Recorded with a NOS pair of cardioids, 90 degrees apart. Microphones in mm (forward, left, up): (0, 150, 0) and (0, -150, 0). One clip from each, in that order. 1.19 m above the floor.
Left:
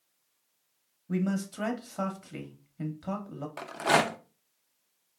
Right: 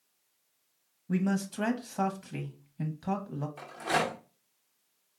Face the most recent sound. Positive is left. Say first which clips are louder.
# left 5 dB
turn(degrees=55)